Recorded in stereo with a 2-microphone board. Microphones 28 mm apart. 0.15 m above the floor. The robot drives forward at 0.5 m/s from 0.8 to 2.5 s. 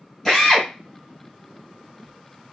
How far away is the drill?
About 2.5 m.